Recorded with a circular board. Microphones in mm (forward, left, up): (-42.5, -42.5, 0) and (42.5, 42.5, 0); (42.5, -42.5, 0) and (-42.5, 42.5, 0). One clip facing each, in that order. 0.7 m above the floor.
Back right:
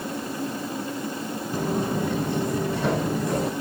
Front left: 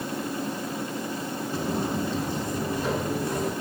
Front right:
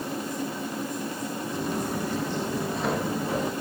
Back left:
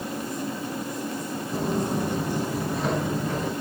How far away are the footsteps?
About 1.6 m.